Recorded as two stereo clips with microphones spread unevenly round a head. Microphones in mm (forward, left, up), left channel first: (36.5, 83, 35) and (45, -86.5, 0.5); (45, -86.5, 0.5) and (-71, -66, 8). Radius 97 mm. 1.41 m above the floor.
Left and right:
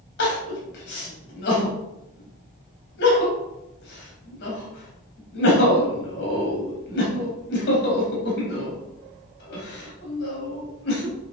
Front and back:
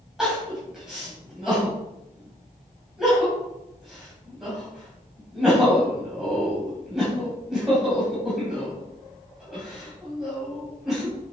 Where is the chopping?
No chopping in this recording.